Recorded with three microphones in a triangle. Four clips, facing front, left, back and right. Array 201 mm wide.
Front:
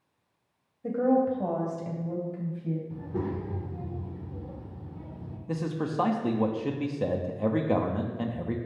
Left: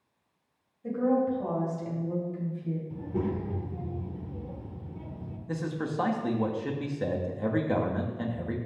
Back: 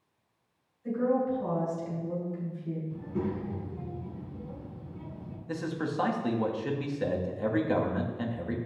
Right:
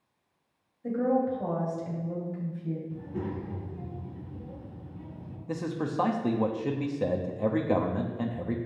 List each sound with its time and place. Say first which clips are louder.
0.8 s a woman speaking: even, front 3 dB; 10° right, 3 m; by 2.8 s 20° right, 4 m
2.9 s a child speaking: left 4 dB, even; 50° left, 1.7 m
5.5 s a man speaking: right 1 dB, front 2 dB; 45° right, 1.0 m